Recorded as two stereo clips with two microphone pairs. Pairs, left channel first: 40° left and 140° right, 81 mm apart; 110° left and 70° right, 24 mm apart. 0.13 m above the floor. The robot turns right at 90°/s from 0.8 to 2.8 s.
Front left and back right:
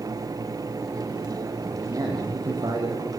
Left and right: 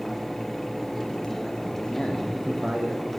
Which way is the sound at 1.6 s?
150° left.